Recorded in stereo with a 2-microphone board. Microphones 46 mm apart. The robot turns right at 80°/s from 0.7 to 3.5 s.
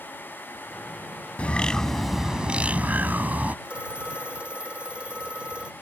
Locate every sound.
1.4 s a bird: 130° left; by 3.5 s 60° right
3.6 s a phone ringing: 25° right (ahead or behind)